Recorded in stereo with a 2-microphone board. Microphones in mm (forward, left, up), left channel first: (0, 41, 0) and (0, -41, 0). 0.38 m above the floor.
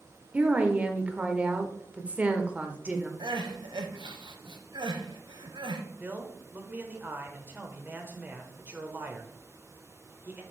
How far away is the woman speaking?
About 0.8 m.